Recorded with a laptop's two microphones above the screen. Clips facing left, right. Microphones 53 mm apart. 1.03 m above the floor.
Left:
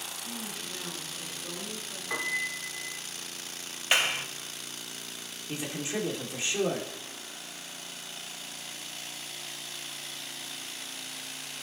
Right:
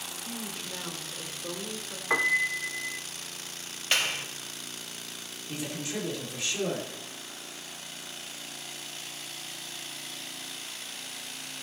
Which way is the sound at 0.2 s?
35° right (ahead or behind).